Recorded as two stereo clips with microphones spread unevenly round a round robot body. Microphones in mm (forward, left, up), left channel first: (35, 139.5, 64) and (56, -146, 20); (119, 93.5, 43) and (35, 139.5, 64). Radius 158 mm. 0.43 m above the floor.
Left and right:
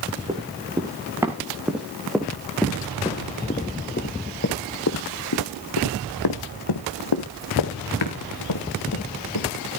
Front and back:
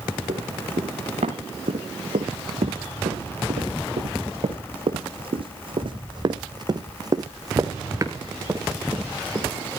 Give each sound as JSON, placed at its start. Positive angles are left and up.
{"t": 0.3, "sound": "running footsteps", "azimuth_deg": -165, "distance_m": 3.0}